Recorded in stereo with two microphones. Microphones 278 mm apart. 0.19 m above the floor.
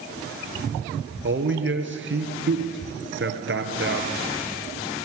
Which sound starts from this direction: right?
A man speaking, at 1.2 s.